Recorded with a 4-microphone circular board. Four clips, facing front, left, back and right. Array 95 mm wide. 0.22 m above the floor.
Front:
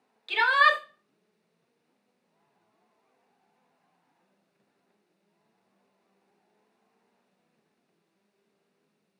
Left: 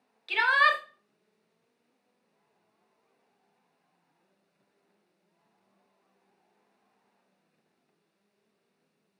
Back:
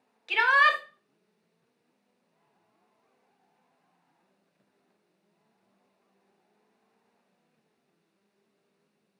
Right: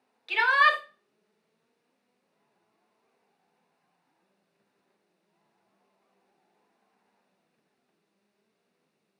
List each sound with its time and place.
0.3 s a shout: 170° right, 1.1 m